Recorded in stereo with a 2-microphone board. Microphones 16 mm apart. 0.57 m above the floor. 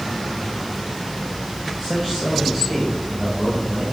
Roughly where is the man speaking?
Left.